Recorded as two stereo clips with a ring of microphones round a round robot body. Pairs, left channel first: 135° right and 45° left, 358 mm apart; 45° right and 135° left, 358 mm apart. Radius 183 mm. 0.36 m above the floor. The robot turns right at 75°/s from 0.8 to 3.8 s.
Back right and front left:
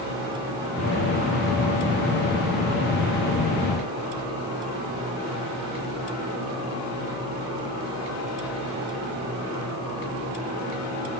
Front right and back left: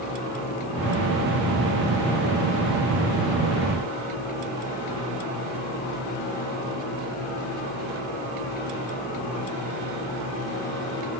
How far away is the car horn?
No car horn in this recording.